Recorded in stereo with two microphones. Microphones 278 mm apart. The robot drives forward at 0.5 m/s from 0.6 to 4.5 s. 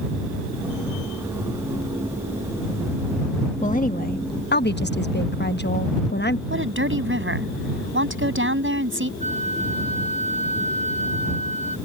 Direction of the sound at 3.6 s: 25° left (ahead or behind).